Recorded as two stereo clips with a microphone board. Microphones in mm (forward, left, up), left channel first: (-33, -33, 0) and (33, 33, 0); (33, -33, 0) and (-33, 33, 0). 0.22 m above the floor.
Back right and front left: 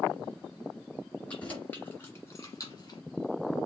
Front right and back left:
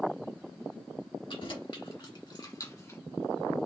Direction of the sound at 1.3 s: 60° right.